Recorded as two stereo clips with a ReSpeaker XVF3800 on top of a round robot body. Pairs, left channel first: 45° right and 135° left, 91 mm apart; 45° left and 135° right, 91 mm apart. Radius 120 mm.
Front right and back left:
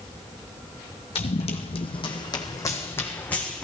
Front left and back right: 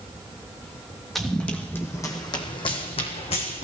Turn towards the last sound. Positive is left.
turn(degrees=35)